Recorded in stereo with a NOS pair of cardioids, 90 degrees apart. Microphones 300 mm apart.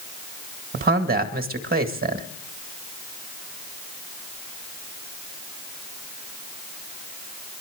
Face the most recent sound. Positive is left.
turn(degrees=-35)